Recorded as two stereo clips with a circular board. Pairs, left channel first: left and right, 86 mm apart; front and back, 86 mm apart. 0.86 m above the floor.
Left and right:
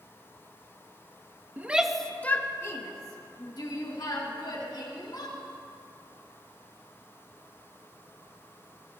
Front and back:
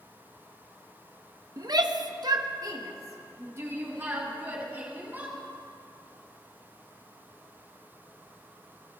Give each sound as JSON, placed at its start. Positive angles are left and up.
{"t": 1.6, "sound": "a shout", "azimuth_deg": -155, "distance_m": 0.7}